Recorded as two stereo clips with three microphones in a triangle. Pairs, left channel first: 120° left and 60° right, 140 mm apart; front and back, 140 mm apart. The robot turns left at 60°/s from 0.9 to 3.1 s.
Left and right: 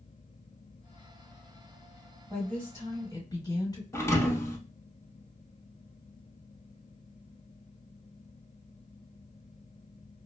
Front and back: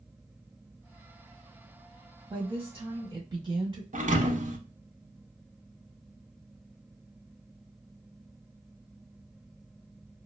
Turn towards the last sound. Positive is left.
turn(degrees=-175)